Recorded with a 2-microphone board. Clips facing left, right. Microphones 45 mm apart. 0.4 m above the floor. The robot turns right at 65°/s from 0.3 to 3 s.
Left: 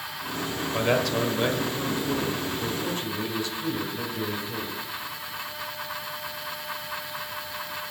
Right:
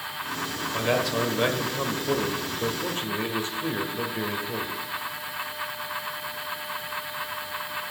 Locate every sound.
0.7 s a man speaking: 160° left, 1.4 m; by 4.8 s 50° right, 1.4 m